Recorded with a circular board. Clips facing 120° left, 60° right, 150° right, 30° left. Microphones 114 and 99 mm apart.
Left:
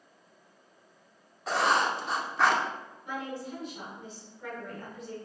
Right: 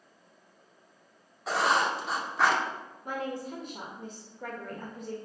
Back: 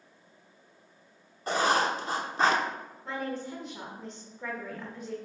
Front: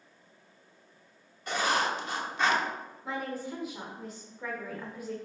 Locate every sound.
1.5 s writing: 150° right, 0.9 m
3.0 s a woman speaking: 50° right, 1.6 m